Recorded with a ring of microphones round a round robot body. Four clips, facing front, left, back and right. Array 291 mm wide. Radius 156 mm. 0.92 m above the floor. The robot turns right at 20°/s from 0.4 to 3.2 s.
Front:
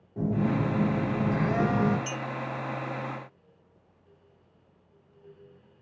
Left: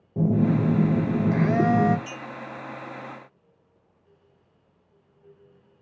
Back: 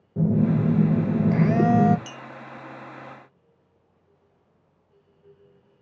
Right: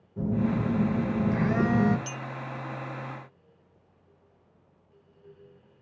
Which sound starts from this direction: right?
A clink, at 2.1 s.